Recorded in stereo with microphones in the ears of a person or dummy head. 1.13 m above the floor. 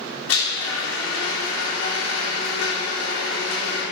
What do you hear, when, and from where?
0.3 s a blender: 80° left, 3.5 m